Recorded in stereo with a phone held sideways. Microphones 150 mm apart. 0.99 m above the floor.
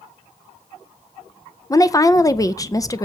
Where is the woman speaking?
20° left (ahead or behind), 0.6 m.